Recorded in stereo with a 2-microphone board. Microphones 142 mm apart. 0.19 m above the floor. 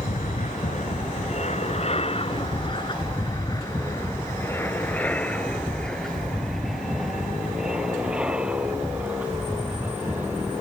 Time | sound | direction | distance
0.0 | an aircraft | 60° left (ahead or behind) | ?